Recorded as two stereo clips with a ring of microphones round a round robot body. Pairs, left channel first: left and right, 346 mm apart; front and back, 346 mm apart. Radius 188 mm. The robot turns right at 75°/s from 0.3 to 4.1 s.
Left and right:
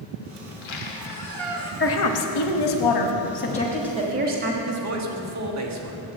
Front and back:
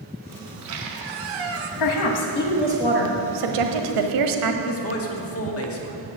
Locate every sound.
0.5 s a squeak: 105° left, 1.1 m; by 1.7 s 160° right, 1.1 m
1.8 s a woman speaking: 30° left, 1.2 m; by 4.5 s 155° right, 1.2 m
4.6 s a man speaking: 50° right, 1.7 m